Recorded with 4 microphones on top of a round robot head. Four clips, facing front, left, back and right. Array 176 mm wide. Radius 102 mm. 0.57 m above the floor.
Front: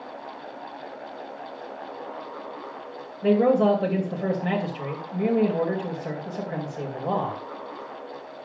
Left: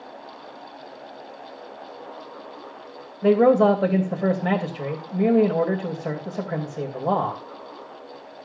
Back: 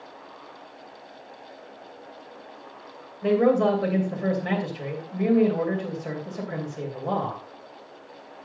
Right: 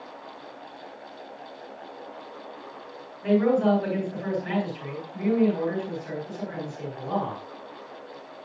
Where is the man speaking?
80° left, 3 m.